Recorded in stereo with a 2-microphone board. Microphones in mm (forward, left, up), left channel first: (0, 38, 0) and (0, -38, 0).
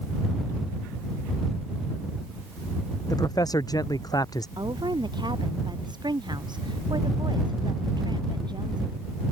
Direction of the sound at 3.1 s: 55° left (ahead or behind).